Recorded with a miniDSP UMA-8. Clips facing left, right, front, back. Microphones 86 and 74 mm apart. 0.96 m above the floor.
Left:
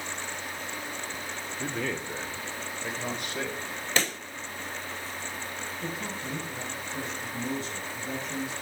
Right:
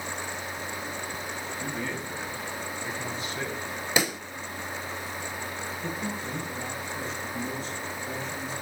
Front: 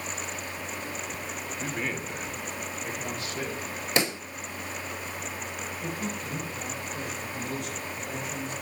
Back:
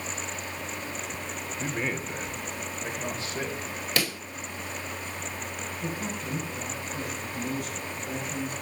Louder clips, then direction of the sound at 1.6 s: Left 3 dB, back 2 dB; 105° left.